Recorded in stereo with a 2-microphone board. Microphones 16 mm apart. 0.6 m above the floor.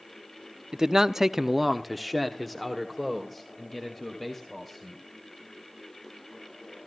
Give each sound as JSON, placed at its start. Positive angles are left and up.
{"t": 0.7, "sound": "a man speaking", "side_deg": -35, "distance_m": 0.6}